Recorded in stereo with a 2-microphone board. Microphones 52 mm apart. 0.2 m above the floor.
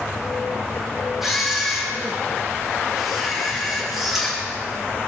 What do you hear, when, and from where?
1.2 s a camera shutter: 5° right (ahead or behind), 9.5 m